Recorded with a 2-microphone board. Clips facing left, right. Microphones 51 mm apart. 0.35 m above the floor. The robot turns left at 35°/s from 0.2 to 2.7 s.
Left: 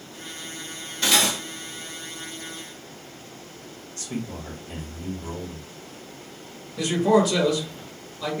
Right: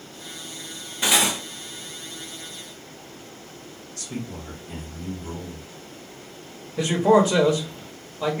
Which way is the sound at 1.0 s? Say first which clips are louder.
Even; 15° right (ahead or behind).